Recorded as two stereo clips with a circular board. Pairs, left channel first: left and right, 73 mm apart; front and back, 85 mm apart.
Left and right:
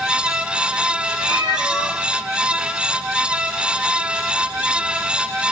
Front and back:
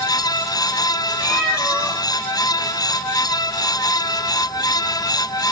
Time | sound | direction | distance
1.2 | a cat meowing | 100° right | 3.5 m